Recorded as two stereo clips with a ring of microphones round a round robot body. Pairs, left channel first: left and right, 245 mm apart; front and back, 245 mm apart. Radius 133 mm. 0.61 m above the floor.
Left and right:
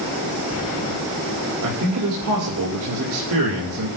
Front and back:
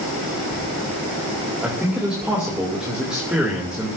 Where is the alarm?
No alarm in this recording.